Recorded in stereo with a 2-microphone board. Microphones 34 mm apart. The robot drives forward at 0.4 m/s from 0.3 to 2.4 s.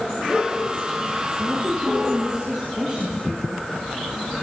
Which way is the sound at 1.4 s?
20° right (ahead or behind).